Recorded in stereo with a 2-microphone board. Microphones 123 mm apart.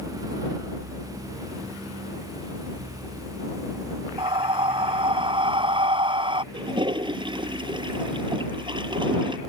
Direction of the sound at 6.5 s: 40° right (ahead or behind).